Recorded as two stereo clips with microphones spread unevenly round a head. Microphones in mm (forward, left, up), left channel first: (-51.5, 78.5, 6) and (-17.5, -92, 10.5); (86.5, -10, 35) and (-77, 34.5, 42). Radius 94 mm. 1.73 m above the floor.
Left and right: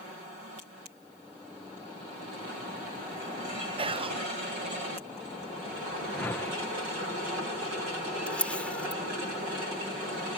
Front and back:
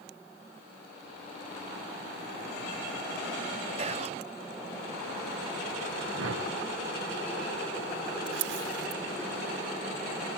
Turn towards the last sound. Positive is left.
turn(degrees=-175)